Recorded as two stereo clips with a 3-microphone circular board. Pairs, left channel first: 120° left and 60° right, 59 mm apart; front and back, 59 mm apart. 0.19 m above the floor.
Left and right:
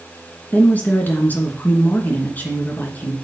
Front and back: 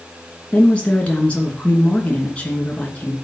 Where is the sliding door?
I don't hear a sliding door.